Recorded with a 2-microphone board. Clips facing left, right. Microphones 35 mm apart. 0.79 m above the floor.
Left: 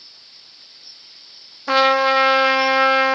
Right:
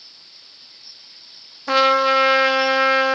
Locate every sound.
1.7 s a trumpet: centre (ahead or behind), 0.7 m